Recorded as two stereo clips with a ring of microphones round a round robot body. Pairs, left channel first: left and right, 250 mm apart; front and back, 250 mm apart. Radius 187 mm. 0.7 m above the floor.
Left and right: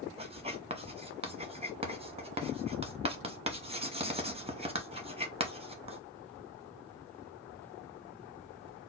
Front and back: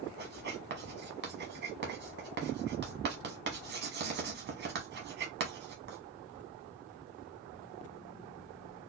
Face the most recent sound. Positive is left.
turn(degrees=-150)